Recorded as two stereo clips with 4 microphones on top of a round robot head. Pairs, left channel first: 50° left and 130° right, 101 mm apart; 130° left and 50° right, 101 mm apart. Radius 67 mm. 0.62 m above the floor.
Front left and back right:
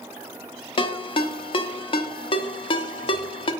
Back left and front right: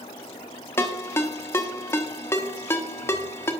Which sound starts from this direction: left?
A ringtone, at 0.8 s.